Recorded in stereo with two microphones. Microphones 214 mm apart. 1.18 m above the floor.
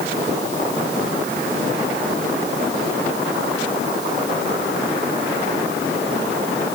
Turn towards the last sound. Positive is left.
No sound to turn to.